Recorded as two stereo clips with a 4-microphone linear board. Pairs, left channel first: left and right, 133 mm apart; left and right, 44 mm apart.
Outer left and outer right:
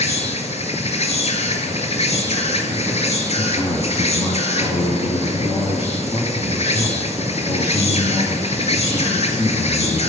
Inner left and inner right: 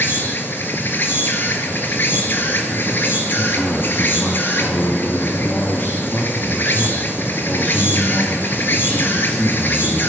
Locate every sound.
0.0 s an insect: 55° left (ahead or behind), 1.3 m
3.4 s a man speaking: 35° left (ahead or behind), 2 m